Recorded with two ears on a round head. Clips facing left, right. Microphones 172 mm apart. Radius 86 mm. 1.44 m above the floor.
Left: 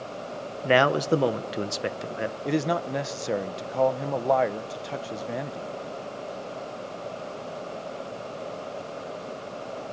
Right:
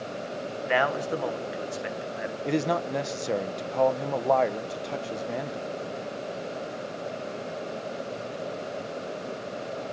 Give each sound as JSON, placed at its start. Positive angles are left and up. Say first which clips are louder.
{"t": 0.6, "sound": "a man speaking", "louder": "left 5 dB", "side_deg": 50, "distance_m": 1.3}
{"t": 2.5, "sound": "a man speaking", "louder": "even", "side_deg": 0, "distance_m": 0.6}